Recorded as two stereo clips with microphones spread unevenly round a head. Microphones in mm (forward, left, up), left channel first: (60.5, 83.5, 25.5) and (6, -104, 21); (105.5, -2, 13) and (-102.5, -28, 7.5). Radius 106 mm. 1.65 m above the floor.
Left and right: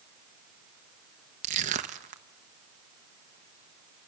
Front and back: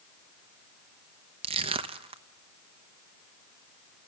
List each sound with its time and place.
1.4 s crushing: 125° right, 0.9 m